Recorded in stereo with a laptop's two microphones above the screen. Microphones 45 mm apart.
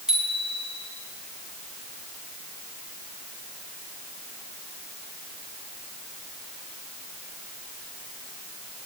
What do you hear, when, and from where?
0.1 s a bicycle bell: 15° right (ahead or behind), 5.5 m